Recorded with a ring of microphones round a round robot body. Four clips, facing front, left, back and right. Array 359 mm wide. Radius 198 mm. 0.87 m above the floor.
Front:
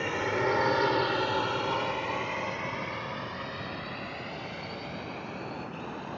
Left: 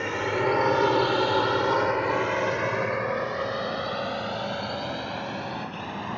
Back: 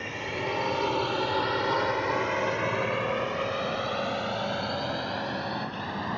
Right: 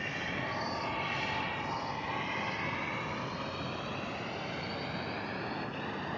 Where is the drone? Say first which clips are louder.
Left 12 dB, front 4 dB; 65° left; by 6.2 s 145° left.